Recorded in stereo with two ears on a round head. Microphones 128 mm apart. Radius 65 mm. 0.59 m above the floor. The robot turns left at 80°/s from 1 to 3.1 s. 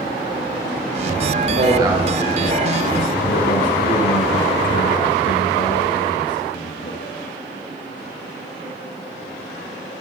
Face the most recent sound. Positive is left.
turn(degrees=110)